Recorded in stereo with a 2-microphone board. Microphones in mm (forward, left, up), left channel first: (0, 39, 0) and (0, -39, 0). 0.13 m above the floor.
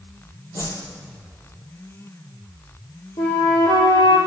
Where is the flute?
75° left (ahead or behind), 1.7 m.